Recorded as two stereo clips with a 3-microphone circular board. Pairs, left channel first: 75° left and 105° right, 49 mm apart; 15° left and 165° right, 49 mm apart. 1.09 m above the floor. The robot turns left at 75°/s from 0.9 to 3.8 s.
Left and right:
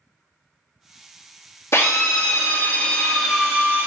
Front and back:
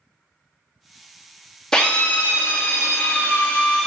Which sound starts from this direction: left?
A drill, at 1.7 s.